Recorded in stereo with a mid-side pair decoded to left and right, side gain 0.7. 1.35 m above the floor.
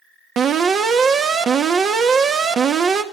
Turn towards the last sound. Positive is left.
turn(degrees=-40)